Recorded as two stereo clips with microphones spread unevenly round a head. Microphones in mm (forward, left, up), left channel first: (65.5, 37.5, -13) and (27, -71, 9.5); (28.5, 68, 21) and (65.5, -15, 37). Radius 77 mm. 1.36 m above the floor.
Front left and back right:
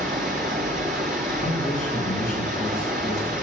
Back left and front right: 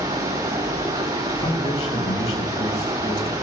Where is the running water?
115° right, 6 m.